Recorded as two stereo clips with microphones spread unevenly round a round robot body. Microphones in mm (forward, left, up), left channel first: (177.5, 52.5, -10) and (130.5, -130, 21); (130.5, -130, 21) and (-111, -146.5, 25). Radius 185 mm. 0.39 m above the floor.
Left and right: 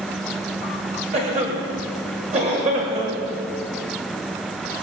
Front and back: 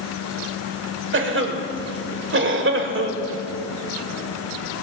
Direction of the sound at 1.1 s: 170° right.